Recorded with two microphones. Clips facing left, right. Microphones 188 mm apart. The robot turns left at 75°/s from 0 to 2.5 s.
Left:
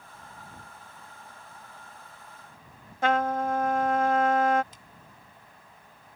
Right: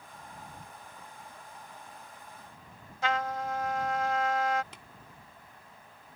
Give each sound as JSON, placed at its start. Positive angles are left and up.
{"t": 3.0, "sound": "a trumpet", "side_deg": 55}
{"t": 4.7, "sound": "tapping", "side_deg": -75}